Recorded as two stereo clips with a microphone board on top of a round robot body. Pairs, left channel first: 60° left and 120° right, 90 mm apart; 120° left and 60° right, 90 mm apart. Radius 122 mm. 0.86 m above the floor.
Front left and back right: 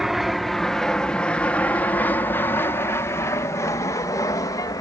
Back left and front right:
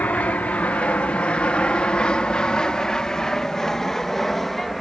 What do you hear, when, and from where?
0.0 s an aircraft: 160° left; by 4.8 s 35° left